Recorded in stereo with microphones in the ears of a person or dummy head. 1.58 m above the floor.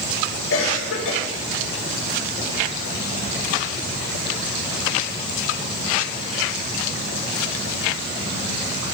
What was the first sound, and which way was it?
A cough, 80° left.